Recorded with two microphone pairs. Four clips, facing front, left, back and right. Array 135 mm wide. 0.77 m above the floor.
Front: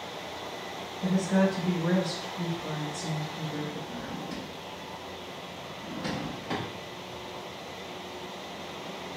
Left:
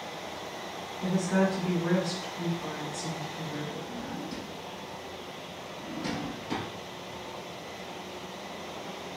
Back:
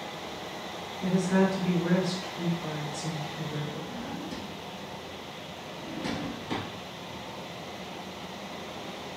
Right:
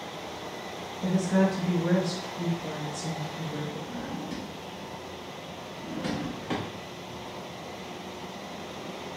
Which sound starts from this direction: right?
A drawer, at 3.9 s.